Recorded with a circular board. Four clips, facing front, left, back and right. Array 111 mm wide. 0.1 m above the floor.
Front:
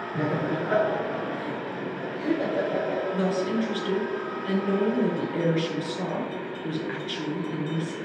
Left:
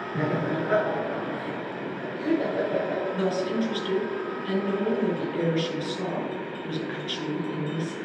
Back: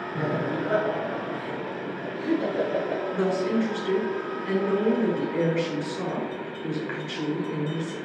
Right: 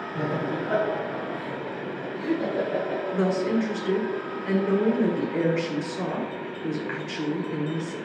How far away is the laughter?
About 1.5 m.